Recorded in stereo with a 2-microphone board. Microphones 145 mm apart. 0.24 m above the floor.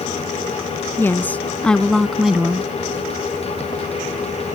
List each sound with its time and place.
1.0 s a woman speaking: 15° left (ahead or behind); by 2.7 s 10° right (ahead or behind)